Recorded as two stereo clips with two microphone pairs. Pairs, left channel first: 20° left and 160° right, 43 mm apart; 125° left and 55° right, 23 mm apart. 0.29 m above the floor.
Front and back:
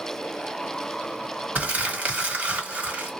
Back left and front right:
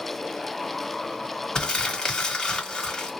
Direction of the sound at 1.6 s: 155° left.